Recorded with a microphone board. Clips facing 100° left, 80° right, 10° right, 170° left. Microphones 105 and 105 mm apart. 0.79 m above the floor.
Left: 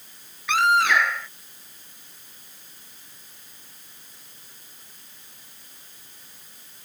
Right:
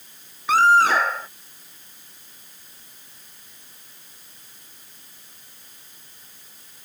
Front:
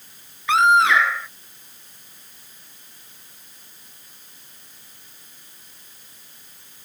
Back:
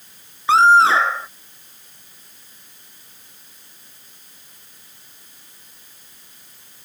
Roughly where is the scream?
Behind right.